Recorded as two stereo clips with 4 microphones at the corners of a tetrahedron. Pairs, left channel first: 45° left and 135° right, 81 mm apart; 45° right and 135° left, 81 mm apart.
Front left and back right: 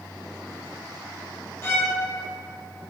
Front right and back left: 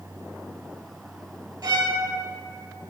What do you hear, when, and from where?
1.6 s a violin: 100° left, 0.6 m